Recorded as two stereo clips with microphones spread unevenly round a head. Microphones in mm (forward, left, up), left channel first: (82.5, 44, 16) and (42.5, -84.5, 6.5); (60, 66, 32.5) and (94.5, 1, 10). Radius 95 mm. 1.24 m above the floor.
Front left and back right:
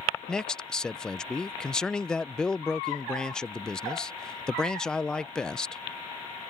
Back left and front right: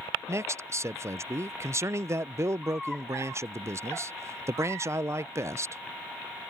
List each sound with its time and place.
0.3 s a man speaking: 15° right